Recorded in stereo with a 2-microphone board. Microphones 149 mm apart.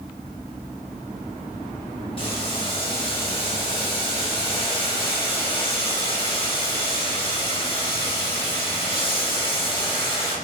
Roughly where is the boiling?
Left.